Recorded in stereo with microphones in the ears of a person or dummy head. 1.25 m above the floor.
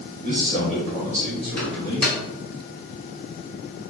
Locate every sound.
0.2 s a man speaking: 40° right (ahead or behind), 1.7 m
1.6 s a microwave: 5° left (ahead or behind), 1.6 m